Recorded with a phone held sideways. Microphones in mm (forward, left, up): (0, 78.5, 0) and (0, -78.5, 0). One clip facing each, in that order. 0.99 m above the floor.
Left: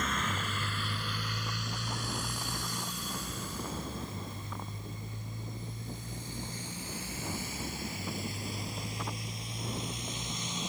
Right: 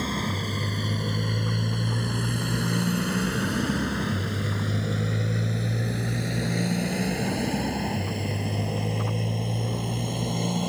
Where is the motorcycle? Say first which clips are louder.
Right 6 dB; 35° right (ahead or behind); by 10.7 s 55° right (ahead or behind).